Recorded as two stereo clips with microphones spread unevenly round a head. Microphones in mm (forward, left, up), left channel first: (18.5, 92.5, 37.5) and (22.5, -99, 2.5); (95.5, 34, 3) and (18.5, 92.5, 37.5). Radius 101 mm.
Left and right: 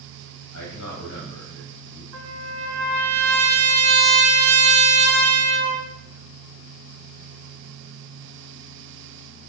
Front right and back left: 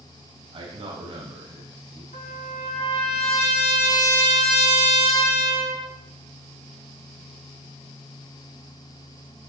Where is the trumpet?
85° right, 2.5 m.